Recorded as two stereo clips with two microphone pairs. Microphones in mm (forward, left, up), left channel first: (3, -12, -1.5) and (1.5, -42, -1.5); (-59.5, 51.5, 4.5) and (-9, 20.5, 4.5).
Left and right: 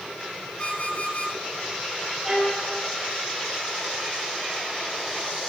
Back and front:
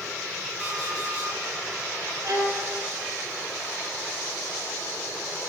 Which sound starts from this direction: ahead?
A violin, at 2.2 s.